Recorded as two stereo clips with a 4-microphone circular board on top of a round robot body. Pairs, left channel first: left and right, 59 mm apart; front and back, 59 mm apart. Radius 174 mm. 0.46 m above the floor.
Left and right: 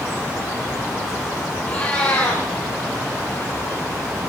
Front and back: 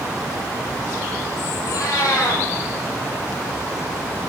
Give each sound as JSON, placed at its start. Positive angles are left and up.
{"t": 1.6, "sound": "a cat meowing", "azimuth_deg": 20, "distance_m": 10.0}